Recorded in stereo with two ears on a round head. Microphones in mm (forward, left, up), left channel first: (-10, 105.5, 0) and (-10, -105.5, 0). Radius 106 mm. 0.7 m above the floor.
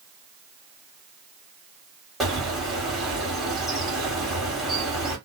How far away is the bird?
About 1.6 m.